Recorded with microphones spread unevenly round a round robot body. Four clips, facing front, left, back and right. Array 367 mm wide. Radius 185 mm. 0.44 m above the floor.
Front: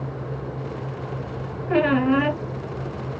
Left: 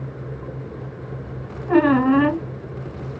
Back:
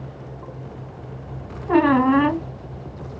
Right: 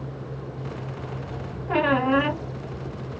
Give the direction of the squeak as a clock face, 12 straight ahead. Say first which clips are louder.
Left 6 dB, back 3 dB; 6 o'clock.